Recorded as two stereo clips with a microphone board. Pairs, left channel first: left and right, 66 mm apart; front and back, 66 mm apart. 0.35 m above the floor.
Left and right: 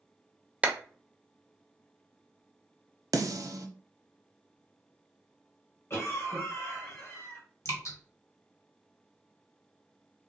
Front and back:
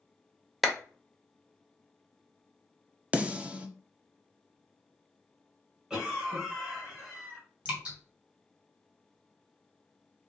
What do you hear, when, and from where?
0.6 s a clap: 90° right, 0.6 m
3.1 s a snare drum: 110° right, 0.6 m
5.9 s a cough: 105° left, 2 m
7.7 s dripping: 115° left, 1.8 m